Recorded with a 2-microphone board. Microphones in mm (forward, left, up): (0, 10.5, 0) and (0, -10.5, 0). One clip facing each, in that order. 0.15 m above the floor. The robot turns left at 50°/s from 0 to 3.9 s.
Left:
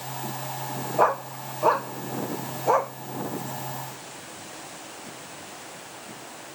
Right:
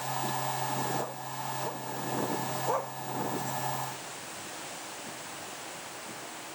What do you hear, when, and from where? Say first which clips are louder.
1.0 s a dog barking: left 13 dB; 60° left (ahead or behind); by 2.9 s 20° left (ahead or behind)